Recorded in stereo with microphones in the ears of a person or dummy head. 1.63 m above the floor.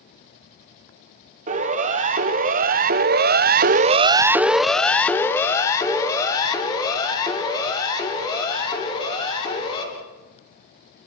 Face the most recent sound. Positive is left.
turn(degrees=25)  # may be behind; listen again after turning